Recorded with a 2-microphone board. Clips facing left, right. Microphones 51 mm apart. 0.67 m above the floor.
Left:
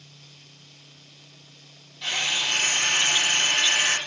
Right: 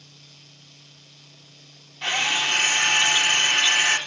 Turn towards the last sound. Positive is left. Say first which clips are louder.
# right 3 dB
turn(degrees=-45)  # may be behind; listen again after turning